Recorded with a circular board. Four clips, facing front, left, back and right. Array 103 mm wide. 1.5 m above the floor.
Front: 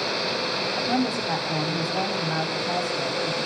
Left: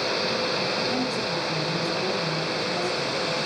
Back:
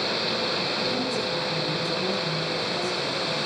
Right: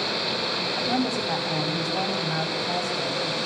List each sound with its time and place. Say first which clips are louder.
0.8 s a woman speaking: right 1 dB, front 3 dB; 30° right, 7.5 m